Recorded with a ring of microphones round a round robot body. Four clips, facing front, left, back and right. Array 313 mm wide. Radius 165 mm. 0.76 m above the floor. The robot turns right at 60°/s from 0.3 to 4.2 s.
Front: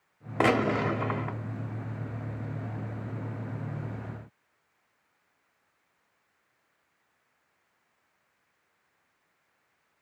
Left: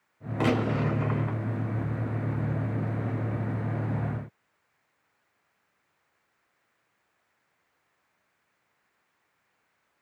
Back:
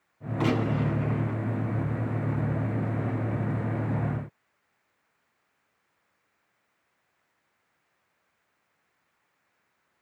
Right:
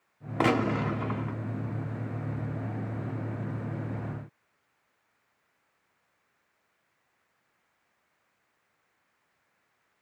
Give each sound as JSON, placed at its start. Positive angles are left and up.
{"t": 0.4, "sound": "a gunshot", "azimuth_deg": -25, "distance_m": 0.6}